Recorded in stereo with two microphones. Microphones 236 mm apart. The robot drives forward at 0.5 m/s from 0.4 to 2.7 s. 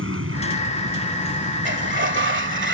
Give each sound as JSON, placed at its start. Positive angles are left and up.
{"t": 0.0, "sound": "an aircraft", "side_deg": -65}
{"t": 1.6, "sound": "a sliding door", "side_deg": -50}